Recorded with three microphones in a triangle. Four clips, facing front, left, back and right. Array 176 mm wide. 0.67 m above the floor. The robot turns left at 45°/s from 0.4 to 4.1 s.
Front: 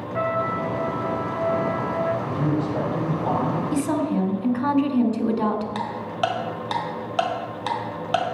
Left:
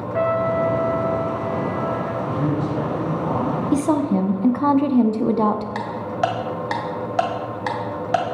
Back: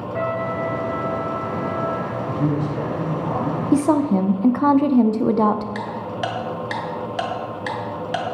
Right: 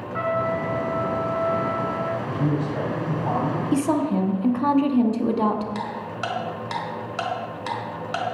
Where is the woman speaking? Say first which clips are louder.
Left 3 dB, back 9 dB; 170° left, 0.9 m; by 5.7 s 155° left, 0.9 m.